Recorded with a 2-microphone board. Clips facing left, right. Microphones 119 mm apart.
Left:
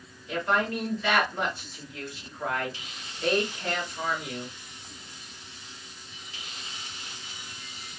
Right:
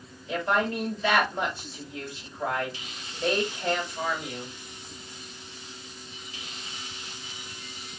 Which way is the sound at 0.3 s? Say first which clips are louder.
Right 1 dB; 30° right (ahead or behind).